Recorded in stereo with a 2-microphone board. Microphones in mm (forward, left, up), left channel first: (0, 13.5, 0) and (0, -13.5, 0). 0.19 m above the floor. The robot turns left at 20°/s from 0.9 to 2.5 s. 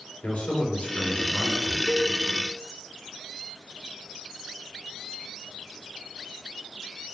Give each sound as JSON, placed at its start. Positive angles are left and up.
{"t": 0.2, "sound": "a man speaking", "side_deg": 60, "distance_m": 3.5}
{"t": 1.9, "sound": "a cowbell", "side_deg": -30, "distance_m": 1.2}